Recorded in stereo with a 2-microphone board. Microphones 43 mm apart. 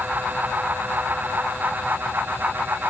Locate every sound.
Only background noise.